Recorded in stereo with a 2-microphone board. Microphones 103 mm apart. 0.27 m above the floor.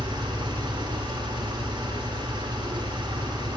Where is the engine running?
45° right (ahead or behind), 1.0 m.